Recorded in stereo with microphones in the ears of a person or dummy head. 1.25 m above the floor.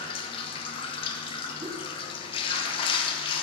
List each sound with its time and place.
0.0 s running water: 30° left (ahead or behind), 1.0 m
1.6 s a whoosh: 20° right (ahead or behind), 0.6 m